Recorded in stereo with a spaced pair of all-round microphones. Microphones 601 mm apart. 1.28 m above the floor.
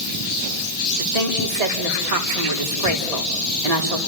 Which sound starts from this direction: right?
A woman speaking, at 1.0 s.